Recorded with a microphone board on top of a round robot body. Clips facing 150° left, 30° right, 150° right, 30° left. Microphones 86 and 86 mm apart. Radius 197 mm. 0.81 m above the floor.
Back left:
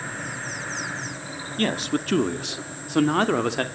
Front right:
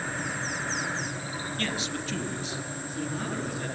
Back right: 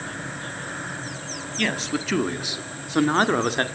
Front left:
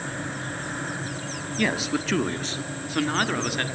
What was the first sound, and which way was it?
A man speaking, 110° left.